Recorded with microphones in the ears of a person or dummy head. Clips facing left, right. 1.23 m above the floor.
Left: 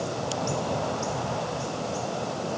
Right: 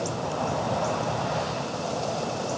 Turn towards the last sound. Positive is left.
No sound to turn to.